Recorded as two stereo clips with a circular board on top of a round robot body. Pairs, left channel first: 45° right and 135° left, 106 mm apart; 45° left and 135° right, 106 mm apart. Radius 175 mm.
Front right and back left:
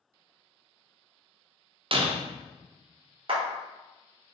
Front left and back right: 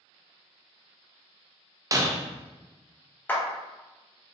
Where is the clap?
115° left, 1.5 m.